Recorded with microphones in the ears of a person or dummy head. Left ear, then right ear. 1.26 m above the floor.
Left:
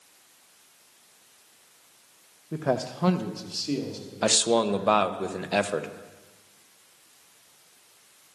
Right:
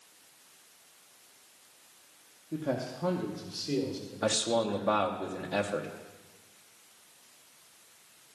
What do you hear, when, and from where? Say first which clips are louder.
2.5 s a man speaking: left 6 dB; 50° left (ahead or behind), 0.8 m; by 4.9 s 10° left (ahead or behind), 3 m
4.2 s a man speaking: left 6 dB; 70° left (ahead or behind), 0.9 m